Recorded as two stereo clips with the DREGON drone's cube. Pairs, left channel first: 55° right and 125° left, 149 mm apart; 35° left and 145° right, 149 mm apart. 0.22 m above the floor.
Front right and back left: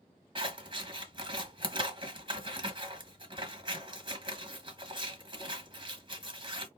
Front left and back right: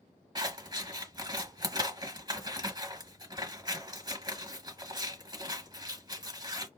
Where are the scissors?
165° left, 1.0 m.